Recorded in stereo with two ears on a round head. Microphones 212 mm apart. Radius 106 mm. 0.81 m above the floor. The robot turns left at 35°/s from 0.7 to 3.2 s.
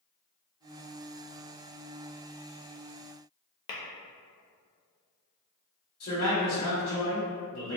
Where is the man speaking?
40° left (ahead or behind), 1.2 m.